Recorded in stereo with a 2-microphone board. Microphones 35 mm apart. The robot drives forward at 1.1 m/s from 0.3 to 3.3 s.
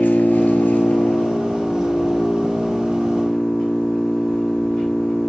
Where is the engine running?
60° left (ahead or behind), 1.0 m; by 5.3 s 15° left (ahead or behind), 3 m.